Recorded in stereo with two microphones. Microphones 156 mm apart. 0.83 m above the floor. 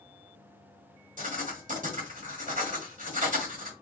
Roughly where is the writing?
Right.